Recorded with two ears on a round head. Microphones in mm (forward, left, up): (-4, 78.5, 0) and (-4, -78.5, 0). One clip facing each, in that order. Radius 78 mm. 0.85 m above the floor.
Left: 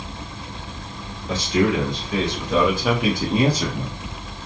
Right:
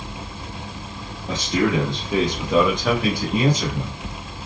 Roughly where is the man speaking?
Right.